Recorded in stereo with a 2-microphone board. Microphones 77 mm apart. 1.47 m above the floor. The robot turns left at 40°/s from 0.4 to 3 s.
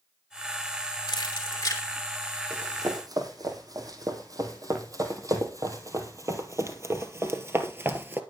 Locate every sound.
1.1 s keys jangling: 70° left (ahead or behind), 3 m; by 1.8 s 40° left (ahead or behind), 3 m
2.5 s running footsteps: 35° right (ahead or behind), 4.5 m; by 8.2 s 25° right (ahead or behind), 1.9 m